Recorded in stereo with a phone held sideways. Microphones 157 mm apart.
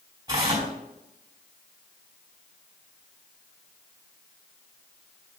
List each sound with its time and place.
0.3 s tearing paper: 25° right (ahead or behind), 4.5 m